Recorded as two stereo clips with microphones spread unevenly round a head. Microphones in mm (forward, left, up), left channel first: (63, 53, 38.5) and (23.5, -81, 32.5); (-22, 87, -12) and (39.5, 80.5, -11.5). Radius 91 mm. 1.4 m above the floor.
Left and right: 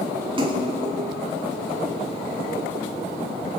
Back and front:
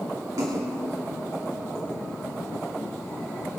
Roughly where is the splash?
Ahead right.